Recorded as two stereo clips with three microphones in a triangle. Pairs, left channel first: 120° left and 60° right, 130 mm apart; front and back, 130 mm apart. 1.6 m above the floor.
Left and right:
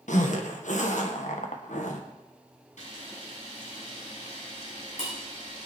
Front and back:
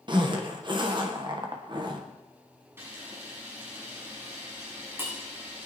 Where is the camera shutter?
110° left, 7 m.